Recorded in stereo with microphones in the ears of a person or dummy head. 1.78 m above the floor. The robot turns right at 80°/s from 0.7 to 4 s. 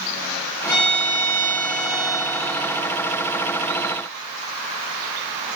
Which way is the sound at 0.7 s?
60° left.